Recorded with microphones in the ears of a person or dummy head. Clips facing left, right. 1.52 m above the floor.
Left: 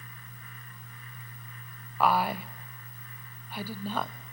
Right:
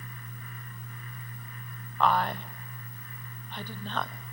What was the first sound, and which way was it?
A woman speaking, 10° left (ahead or behind).